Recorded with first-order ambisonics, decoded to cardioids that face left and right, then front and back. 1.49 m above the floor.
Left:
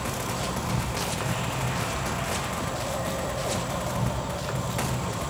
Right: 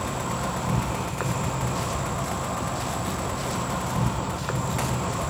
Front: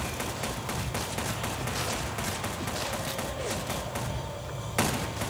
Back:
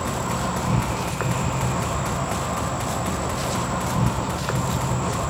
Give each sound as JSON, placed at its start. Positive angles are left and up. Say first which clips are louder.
{"t": 0.0, "sound": "an insect", "louder": "right 2 dB, back 8 dB", "azimuth_deg": -160, "distance_m": 0.7}